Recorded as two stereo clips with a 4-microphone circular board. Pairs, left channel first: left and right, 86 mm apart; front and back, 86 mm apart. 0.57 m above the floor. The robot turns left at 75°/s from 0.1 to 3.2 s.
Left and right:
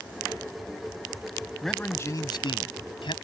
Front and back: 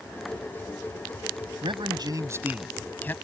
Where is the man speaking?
Straight behind; by 3.1 s 65° left.